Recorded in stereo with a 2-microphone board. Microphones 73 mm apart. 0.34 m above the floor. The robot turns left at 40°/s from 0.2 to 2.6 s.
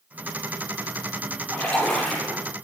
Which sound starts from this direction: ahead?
A splash, at 1.5 s.